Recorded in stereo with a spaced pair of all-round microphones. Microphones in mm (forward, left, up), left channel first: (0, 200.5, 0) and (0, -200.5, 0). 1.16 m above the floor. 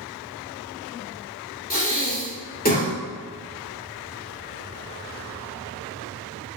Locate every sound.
1.7 s breathing: 20° left (ahead or behind), 2.5 m